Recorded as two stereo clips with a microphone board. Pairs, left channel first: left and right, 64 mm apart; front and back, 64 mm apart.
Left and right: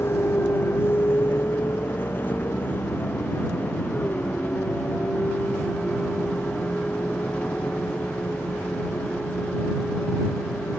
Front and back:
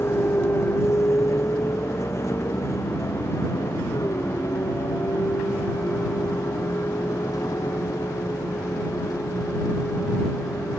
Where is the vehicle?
45° left; by 10.8 s 20° left.